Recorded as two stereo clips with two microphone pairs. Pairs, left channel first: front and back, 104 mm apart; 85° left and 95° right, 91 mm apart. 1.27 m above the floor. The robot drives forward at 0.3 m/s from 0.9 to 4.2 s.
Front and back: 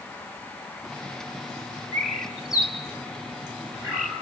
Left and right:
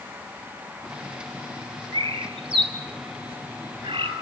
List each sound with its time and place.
1.9 s a bird: 90° right, 4.5 m; by 4.1 s 100° right, 4.5 m